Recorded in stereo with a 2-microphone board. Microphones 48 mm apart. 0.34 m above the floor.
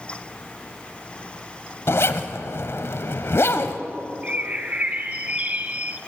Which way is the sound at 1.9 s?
60° left (ahead or behind).